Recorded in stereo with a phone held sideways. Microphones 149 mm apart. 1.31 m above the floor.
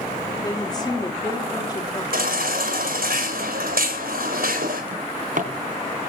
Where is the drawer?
65° right (ahead or behind), 3.5 m.